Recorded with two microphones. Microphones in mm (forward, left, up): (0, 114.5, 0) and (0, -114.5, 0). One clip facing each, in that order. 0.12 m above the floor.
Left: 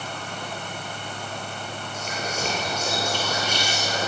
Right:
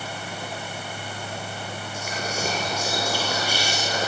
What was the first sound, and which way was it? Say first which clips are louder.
Whispering: even; 10° right (ahead or behind).